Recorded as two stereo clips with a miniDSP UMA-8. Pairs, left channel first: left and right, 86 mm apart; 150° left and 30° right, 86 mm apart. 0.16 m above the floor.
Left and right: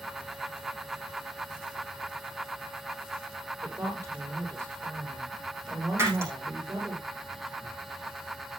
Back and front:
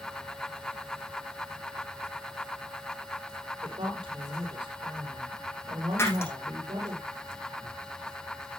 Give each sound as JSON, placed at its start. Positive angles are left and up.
{"t": 3.6, "sound": "a woman speaking", "azimuth_deg": -35, "distance_m": 6.0}
{"t": 6.0, "sound": "breaking glass", "azimuth_deg": -150, "distance_m": 5.0}